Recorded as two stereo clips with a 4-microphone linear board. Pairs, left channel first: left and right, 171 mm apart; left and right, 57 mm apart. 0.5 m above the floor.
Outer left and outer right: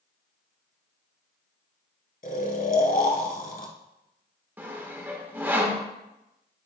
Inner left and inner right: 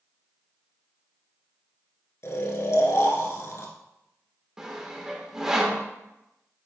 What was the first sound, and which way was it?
Snoring, 55° left (ahead or behind).